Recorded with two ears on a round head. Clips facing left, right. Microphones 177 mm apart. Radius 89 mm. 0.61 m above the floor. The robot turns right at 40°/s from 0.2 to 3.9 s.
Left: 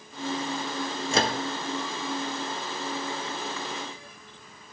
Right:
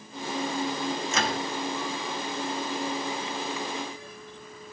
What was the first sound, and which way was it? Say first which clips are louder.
A microwave: left 7 dB; 30° left (ahead or behind).